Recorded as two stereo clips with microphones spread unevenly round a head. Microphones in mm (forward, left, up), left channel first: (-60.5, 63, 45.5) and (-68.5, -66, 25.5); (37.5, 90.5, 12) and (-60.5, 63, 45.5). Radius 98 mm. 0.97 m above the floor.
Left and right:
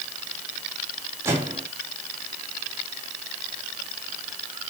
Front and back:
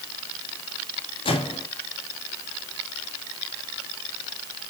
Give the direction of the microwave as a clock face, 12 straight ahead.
1 o'clock.